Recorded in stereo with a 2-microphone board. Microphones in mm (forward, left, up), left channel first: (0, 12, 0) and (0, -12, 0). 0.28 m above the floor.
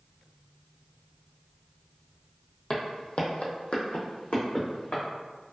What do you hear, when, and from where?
2.7 s footsteps: 35° left (ahead or behind), 0.6 m; by 5.0 s 65° left (ahead or behind), 1.3 m